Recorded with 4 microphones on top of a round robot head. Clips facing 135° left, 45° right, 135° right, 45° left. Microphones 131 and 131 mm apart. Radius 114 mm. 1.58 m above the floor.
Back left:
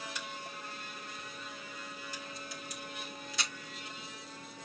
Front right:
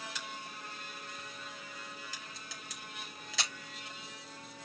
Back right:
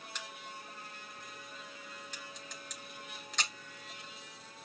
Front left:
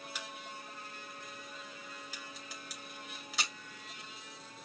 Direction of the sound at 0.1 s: 40° right.